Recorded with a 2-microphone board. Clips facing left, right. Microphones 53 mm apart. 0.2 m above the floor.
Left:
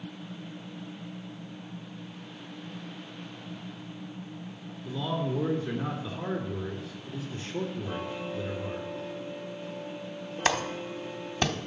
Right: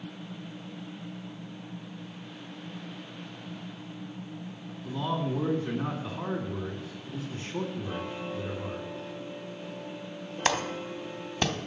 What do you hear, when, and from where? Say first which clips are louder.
4.8 s a man speaking: even; 45° right (ahead or behind), 2 m
7.8 s ticking: even; centre (ahead or behind), 4 m
10.4 s a clap: even; centre (ahead or behind), 0.8 m